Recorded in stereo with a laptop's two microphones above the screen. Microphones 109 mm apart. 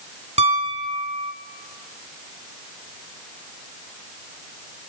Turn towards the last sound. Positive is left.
turn(degrees=-70)  # may be behind; listen again after turning